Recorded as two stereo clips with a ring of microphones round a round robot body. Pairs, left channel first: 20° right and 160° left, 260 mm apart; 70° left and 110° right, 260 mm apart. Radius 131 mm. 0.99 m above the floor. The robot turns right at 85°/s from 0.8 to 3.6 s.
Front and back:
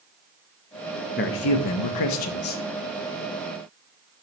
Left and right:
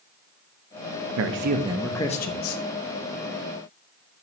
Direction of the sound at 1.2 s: 80° right.